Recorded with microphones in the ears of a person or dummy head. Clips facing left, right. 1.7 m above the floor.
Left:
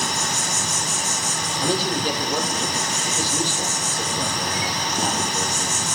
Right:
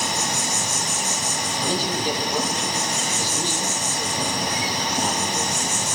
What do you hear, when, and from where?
0.0 s an insect: 15° right (ahead or behind), 2.5 m
1.6 s a man speaking: 65° left (ahead or behind), 6.5 m